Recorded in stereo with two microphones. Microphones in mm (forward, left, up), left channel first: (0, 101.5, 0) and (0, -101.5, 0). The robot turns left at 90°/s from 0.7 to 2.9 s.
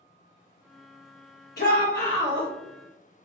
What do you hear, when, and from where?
1.6 s a shout: 60° left, 0.9 m; by 2.5 s 25° right, 0.9 m